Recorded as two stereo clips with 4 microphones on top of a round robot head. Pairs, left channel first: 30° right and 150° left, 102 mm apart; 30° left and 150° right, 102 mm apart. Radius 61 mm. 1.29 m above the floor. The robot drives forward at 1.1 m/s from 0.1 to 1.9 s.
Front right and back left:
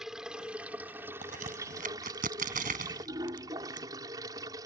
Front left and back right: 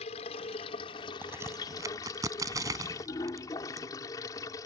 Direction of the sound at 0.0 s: 60° left.